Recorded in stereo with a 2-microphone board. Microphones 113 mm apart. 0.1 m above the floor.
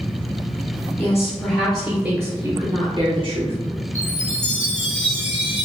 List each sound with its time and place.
1.0 s a woman speaking: 20° left (ahead or behind), 1.7 m; by 3.5 s 55° right (ahead or behind), 1.7 m
4.0 s a chime: 75° left (ahead or behind), 1.4 m